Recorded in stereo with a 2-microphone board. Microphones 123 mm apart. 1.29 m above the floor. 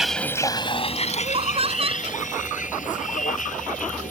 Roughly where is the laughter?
Right.